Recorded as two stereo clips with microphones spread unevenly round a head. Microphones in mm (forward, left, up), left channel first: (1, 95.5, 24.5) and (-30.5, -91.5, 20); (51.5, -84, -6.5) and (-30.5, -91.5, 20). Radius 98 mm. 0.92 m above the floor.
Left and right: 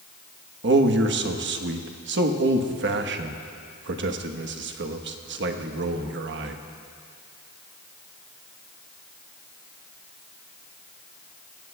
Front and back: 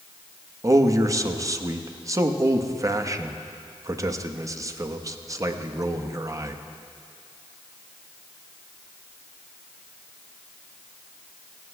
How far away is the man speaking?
About 1.2 m.